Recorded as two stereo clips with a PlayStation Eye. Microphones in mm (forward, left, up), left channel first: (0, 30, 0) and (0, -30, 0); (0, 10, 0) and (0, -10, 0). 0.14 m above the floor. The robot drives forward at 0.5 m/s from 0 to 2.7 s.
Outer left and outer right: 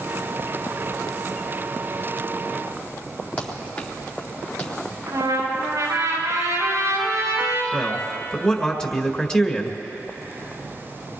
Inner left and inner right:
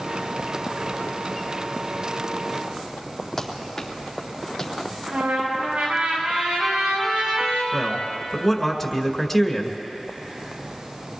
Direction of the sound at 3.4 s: 25° left (ahead or behind).